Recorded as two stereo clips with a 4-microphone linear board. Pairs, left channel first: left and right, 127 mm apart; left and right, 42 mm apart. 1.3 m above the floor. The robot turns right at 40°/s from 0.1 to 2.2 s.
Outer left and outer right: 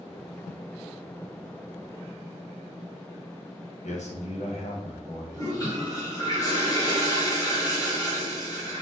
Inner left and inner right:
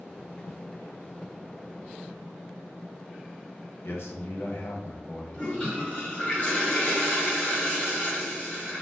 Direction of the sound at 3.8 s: 75° left (ahead or behind).